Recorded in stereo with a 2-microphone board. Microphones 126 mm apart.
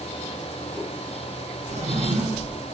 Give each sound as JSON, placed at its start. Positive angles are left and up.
{"t": 1.7, "sound": "a drawer", "side_deg": -65, "distance_m": 2.0}